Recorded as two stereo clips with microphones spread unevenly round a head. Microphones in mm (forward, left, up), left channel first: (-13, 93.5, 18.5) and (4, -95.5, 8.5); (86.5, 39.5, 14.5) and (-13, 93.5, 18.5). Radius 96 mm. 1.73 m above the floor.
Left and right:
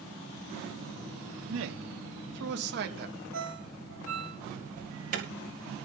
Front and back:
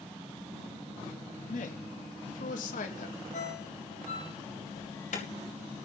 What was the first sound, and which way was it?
A man speaking, 60° right.